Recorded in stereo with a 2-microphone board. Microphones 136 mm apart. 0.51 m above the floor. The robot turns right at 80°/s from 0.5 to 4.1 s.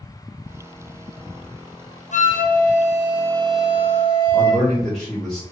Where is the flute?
65° left, 0.6 m; by 4.7 s 140° right, 0.6 m.